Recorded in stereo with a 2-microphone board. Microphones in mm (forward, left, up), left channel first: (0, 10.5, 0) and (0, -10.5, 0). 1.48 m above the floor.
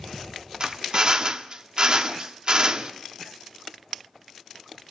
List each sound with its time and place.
0.6 s a drill: 45° right (ahead or behind), 1.3 m